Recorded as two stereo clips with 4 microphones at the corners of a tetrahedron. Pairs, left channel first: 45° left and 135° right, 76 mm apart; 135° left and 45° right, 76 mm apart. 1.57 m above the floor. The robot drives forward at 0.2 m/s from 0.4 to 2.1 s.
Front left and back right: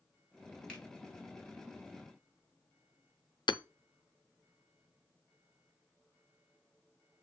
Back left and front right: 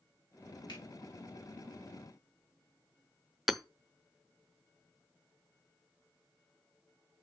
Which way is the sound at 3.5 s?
45° left.